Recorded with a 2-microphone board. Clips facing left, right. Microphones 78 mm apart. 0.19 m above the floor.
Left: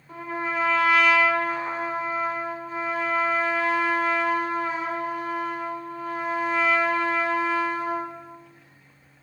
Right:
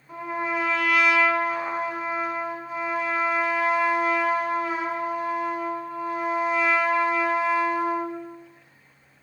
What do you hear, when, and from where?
0.1 s a trumpet: 10° right (ahead or behind), 0.9 m